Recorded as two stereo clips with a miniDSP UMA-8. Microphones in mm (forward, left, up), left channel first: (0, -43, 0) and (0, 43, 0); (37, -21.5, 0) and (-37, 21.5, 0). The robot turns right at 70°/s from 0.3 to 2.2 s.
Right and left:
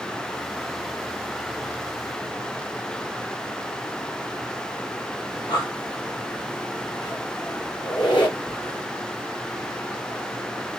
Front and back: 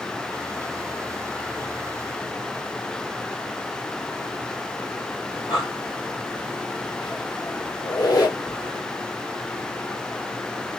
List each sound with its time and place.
5.3 s breathing: 55° right, 2 m
7.8 s a squeak: 70° right, 2.5 m